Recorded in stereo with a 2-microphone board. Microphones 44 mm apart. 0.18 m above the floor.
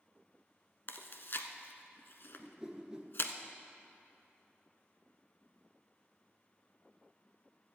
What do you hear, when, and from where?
0.9 s chewing: 60° left (ahead or behind), 0.8 m
2.4 s a whoosh: 20° right (ahead or behind), 1.2 m